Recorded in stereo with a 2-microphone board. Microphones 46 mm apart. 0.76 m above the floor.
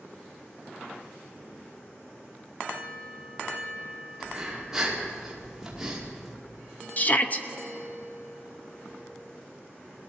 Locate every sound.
4.2 s breathing: 10° right (ahead or behind), 2 m
7.0 s a shout: 35° left (ahead or behind), 0.9 m